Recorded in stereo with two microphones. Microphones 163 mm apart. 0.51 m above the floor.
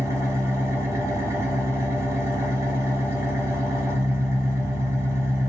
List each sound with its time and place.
0.0 s an engine running: 15° right (ahead or behind), 1.2 m